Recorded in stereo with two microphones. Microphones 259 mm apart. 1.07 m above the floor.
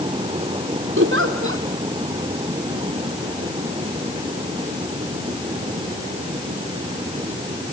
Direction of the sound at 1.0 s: 45° right (ahead or behind).